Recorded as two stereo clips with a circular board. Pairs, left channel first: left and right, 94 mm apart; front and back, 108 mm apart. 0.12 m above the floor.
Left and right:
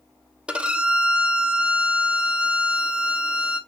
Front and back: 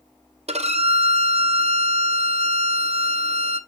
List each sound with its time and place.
0.5 s a violin: 165° right, 0.8 m